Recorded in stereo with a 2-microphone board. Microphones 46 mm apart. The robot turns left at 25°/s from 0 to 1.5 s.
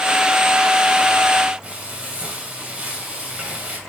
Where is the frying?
30° right (ahead or behind), 2.5 m.